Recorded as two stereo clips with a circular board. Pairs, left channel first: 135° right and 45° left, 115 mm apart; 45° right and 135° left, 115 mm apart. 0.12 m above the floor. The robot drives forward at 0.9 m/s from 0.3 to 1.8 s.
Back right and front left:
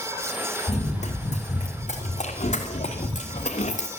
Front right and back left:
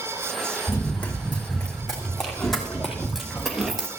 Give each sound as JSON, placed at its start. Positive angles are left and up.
{"t": 0.7, "sound": "running footsteps", "azimuth_deg": -115, "distance_m": 3.5}